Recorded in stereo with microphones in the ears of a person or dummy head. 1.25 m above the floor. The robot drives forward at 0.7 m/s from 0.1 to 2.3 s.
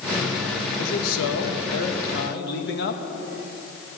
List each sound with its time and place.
0.8 s a man speaking: 75° left (ahead or behind), 1.4 m; by 3.0 s 60° left (ahead or behind), 1.5 m